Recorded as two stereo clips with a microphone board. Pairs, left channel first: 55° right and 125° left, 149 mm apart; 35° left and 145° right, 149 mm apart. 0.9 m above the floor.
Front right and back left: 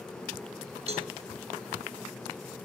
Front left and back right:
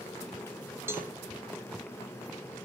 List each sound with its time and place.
0.9 s a cowbell: 145° left, 0.5 m